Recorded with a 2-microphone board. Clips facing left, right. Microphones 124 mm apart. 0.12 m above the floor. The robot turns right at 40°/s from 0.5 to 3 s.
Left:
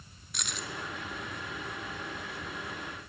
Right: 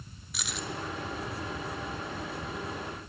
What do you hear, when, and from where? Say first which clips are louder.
0.3 s keys jangling: right 2 dB; centre (ahead or behind), 1.2 m; by 0.7 s 5° left (ahead or behind), 1.2 m